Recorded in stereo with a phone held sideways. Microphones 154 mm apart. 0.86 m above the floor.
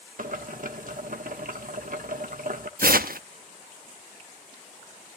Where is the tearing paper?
75° right (ahead or behind), 0.8 m.